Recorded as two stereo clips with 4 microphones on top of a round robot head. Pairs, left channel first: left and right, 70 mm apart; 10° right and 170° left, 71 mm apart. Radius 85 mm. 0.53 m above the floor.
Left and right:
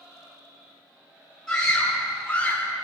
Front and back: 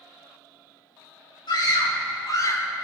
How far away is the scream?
About 3 m.